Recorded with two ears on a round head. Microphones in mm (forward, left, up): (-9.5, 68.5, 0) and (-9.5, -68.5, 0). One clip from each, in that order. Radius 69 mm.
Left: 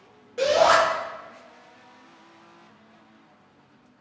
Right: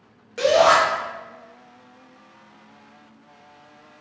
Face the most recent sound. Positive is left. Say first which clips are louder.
# right 3 dB
turn(degrees=-40)  # may be behind; listen again after turning